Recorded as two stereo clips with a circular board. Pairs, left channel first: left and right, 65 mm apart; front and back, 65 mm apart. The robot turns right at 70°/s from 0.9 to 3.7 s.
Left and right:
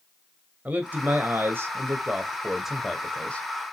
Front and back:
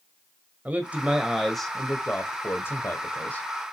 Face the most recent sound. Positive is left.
turn(degrees=65)